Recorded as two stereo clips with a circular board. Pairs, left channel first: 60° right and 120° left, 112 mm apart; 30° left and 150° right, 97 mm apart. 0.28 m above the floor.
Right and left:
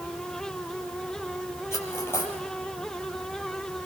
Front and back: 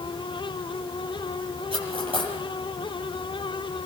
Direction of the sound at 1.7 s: 125° right.